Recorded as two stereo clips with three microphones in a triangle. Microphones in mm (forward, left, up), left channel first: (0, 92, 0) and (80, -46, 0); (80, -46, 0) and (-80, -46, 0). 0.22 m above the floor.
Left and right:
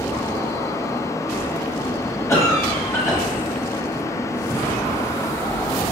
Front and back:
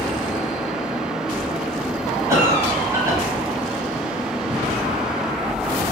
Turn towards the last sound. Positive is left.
turn(degrees=150)